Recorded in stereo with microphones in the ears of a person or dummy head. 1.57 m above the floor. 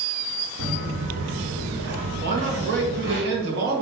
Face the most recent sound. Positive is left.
turn(degrees=-55)  # may be behind; listen again after turning